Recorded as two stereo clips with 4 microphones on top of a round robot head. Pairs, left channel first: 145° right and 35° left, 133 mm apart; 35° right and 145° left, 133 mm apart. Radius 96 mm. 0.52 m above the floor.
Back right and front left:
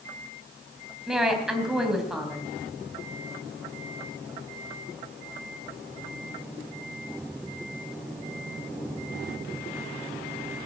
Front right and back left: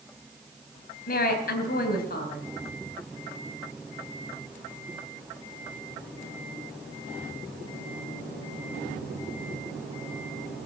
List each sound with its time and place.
1.1 s a woman speaking: 50° right, 3.5 m